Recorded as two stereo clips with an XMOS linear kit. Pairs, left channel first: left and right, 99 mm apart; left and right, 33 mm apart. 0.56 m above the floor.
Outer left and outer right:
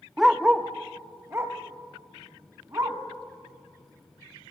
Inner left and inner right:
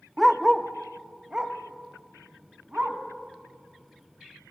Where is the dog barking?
Centre (ahead or behind), 0.5 m; by 3.0 s 35° right (ahead or behind), 1.9 m.